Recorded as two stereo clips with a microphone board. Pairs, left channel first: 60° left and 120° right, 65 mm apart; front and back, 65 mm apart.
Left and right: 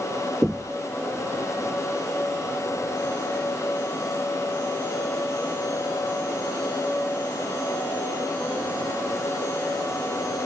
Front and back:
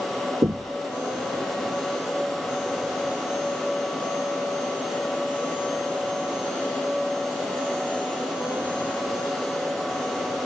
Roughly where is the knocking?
Behind.